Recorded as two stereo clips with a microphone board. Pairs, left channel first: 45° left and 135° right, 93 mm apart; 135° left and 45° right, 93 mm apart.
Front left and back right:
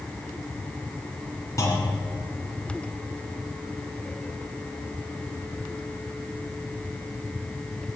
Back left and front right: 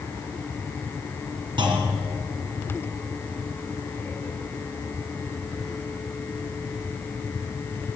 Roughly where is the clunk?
Ahead.